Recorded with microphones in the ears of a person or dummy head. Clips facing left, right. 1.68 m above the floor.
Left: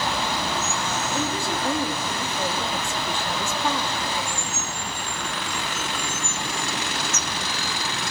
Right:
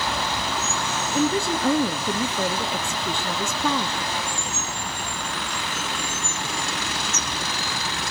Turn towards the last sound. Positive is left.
turn(degrees=-70)  # may be behind; listen again after turning